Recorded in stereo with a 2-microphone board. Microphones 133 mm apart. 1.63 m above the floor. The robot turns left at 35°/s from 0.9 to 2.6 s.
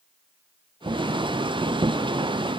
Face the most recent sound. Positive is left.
No sound to turn to.